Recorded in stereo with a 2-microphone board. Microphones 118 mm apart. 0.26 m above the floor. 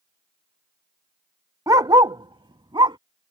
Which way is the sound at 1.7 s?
25° right (ahead or behind).